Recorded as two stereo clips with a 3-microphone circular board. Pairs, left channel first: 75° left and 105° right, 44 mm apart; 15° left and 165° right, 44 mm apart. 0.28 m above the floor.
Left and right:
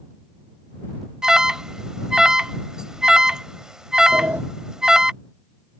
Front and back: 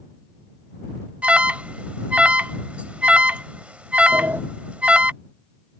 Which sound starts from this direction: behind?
An alarm, at 1.2 s.